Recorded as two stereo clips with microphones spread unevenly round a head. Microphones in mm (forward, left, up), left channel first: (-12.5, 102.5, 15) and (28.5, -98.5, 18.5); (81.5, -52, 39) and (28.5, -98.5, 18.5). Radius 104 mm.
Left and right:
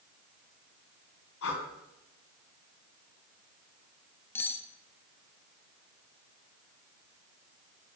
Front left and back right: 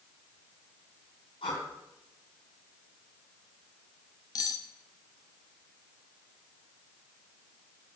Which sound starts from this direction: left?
Breathing, at 1.4 s.